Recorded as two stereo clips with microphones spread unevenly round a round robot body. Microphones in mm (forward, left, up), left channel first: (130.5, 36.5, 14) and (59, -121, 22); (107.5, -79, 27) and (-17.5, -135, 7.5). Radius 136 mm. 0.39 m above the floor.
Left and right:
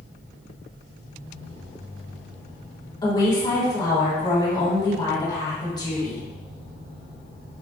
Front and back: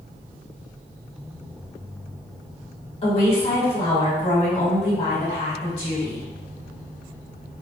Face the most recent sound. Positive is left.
turn(degrees=25)